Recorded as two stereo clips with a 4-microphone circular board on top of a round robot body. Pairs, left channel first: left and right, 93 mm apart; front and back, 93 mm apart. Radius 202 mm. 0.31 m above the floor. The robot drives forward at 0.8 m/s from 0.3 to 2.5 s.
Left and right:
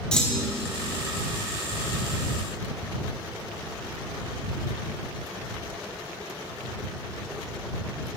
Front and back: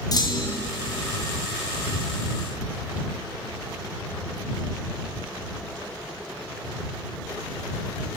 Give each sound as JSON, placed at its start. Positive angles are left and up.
{"t": 0.1, "sound": "a clunk", "azimuth_deg": 10, "distance_m": 1.9}